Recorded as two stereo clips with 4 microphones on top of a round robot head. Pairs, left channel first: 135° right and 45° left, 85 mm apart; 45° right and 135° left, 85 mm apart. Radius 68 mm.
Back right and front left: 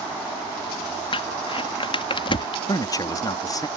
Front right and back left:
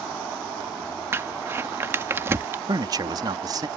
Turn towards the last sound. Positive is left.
turn(degrees=180)